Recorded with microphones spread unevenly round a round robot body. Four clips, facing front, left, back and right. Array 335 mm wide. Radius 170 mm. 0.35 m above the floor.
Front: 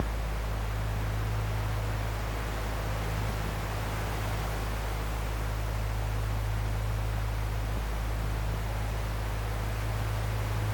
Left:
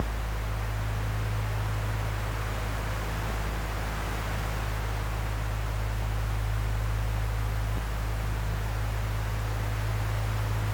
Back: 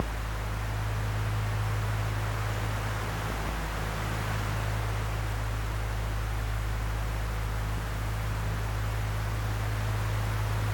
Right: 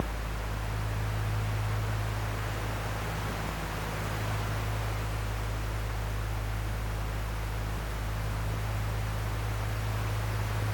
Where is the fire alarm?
I don't hear a fire alarm.